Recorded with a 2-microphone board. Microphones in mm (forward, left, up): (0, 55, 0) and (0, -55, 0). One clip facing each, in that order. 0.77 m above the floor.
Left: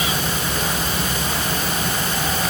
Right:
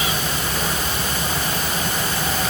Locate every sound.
Only background noise.